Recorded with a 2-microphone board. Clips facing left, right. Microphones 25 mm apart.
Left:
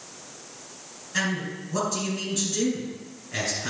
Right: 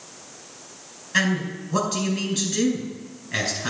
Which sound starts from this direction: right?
A man speaking, at 1.1 s.